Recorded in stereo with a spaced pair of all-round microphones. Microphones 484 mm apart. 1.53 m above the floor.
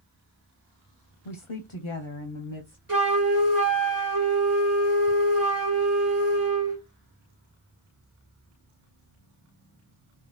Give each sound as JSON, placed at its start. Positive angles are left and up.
{"t": 1.2, "sound": "a woman speaking", "side_deg": 75, "distance_m": 0.6}
{"t": 2.9, "sound": "a flute", "side_deg": -40, "distance_m": 1.5}